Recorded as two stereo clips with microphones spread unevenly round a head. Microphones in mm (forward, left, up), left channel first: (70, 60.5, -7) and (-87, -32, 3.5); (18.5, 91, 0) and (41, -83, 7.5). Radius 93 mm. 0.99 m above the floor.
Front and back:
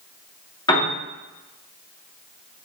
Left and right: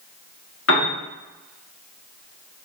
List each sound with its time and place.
0.7 s a piano: 95° left, 1.7 m